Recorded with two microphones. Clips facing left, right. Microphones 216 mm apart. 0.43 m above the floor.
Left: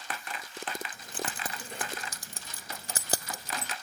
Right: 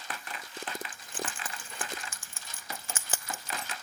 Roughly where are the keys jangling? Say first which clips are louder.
Left 1 dB; left.